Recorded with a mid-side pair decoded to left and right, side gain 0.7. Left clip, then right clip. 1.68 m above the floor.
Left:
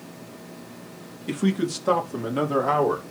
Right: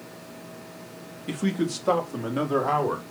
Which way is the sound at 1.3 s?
5° left.